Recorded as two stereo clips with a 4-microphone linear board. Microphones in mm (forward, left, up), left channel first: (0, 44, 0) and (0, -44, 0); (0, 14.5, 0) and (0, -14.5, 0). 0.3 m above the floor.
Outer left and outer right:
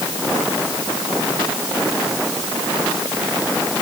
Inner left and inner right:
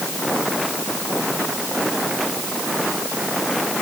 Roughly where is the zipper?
I don't hear a zipper.